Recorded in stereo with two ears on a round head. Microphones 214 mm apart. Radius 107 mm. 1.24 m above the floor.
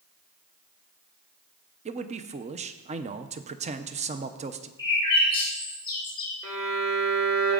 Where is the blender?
No blender in this recording.